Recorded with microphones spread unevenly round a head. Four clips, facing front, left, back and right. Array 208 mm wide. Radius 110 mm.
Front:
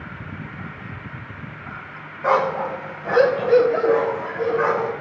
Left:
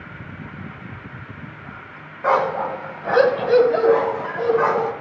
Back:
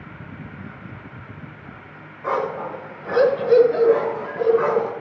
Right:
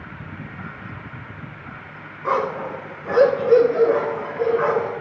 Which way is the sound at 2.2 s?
60° left.